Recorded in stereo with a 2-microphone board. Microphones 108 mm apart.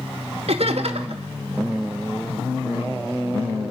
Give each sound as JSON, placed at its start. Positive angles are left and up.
{"t": 0.5, "sound": "laughter", "side_deg": -70, "distance_m": 1.8}